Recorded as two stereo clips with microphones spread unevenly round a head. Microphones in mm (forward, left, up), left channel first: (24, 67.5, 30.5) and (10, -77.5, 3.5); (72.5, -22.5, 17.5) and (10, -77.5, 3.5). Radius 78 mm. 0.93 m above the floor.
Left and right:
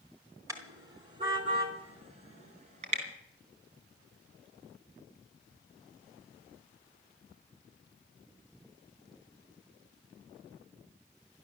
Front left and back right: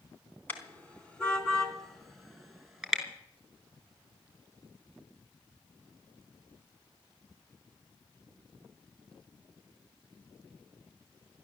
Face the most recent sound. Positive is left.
turn(degrees=-50)